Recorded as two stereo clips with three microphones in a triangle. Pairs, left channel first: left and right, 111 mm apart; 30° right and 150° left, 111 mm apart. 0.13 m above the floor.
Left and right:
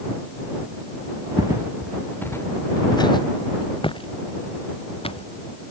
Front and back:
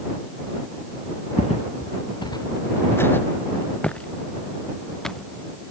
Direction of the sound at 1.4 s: 35° right.